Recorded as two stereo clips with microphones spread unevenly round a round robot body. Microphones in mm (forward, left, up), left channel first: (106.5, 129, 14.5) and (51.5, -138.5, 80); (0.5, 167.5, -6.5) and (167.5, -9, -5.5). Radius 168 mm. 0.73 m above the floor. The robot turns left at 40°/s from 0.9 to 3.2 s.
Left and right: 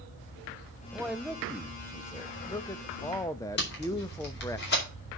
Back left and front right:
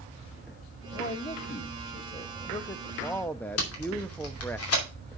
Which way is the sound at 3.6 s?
120° left.